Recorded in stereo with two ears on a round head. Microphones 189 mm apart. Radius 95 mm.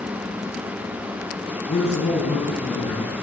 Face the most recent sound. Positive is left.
turn(degrees=20)  # may be behind; listen again after turning